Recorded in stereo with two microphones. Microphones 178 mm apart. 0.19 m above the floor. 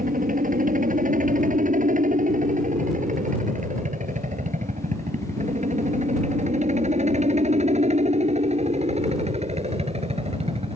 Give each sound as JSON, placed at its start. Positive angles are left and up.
{"t": 0.0, "sound": "a helicopter", "side_deg": -45}